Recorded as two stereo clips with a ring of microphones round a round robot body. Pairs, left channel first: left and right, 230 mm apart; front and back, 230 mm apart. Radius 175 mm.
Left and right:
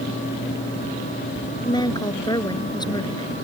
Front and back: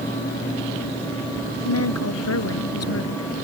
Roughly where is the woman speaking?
Ahead.